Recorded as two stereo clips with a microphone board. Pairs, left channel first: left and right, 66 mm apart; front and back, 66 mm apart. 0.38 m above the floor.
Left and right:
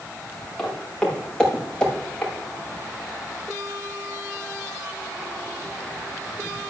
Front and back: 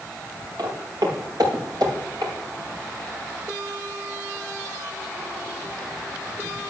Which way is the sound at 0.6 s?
170° left.